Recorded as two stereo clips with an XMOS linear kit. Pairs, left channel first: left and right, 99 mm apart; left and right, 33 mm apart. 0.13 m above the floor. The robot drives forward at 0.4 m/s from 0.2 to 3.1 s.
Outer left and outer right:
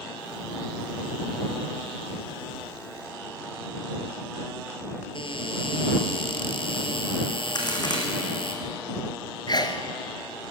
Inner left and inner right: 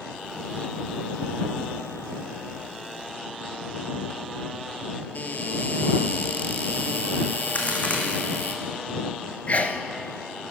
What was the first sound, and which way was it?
A cupboard door, 60° left (ahead or behind).